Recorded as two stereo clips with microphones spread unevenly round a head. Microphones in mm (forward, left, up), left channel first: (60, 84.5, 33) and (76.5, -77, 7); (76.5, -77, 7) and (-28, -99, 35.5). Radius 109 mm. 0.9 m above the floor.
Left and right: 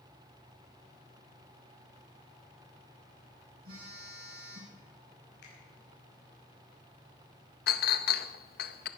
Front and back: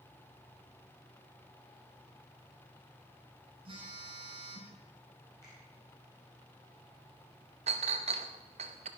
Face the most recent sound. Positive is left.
turn(degrees=140)